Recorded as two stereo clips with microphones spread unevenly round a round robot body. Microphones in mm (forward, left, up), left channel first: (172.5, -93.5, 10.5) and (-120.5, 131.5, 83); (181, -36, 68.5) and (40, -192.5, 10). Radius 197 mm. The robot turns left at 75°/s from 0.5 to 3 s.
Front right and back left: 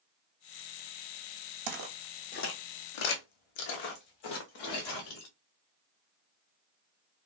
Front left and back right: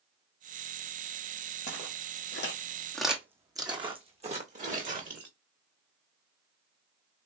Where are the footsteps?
105° left, 1.0 m; by 5.3 s 80° right, 1.8 m.